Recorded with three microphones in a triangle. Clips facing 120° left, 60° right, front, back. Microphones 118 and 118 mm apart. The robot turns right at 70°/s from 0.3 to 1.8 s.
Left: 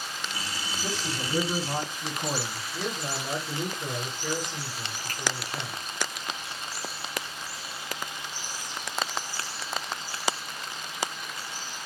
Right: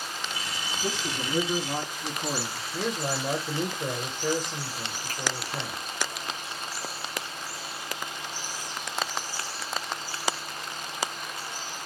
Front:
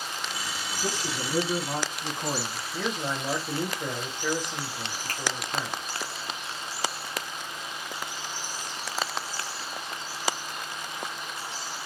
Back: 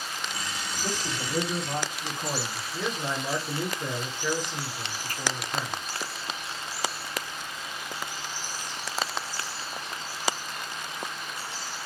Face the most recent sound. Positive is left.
turn(degrees=25)